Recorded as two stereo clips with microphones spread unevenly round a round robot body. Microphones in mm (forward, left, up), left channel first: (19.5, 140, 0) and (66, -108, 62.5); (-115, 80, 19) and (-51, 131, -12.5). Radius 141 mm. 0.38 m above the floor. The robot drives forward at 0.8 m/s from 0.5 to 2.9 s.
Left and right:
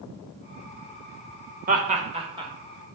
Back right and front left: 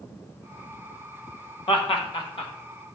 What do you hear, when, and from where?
1.7 s laughter: 140° right, 1.2 m; by 2.5 s 160° right, 1.7 m